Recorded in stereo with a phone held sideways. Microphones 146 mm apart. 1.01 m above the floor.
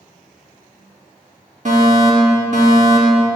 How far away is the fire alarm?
About 2 m.